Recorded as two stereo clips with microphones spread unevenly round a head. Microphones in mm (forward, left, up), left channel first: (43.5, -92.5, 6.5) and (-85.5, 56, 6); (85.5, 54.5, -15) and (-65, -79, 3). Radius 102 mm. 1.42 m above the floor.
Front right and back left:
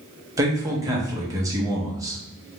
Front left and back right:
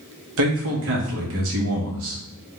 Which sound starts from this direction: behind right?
A man speaking, at 0.4 s.